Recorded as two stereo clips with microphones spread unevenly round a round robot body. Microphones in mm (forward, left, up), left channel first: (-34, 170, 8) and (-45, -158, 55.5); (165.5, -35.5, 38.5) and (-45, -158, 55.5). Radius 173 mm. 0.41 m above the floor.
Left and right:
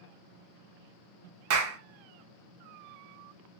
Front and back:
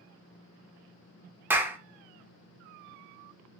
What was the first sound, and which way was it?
A clap, 65° right.